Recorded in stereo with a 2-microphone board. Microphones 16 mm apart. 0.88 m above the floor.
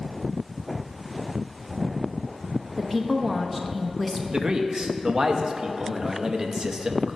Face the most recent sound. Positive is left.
turn(degrees=-45)  # may be behind; listen again after turning